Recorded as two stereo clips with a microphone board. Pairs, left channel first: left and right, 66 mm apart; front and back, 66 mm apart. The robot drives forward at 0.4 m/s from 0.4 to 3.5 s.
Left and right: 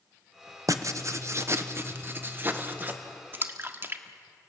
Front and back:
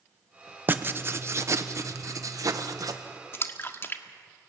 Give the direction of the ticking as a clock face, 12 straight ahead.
I don't hear ticking.